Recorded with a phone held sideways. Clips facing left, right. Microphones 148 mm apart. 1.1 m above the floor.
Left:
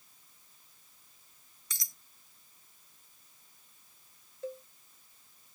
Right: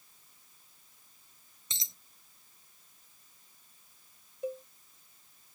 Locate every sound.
1.7 s a dropped coin: 25° right (ahead or behind)
4.4 s a cowbell: 15° right (ahead or behind)